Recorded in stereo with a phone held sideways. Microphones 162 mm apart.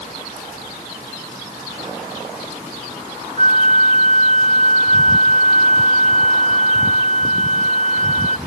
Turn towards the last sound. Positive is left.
turn(degrees=-50)  # may be behind; listen again after turning